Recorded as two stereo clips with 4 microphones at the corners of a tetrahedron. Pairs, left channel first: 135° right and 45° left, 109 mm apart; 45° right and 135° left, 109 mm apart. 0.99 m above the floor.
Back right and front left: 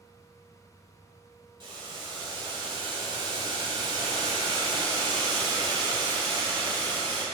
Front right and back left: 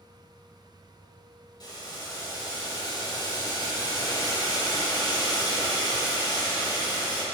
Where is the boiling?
5° left, 2.5 m.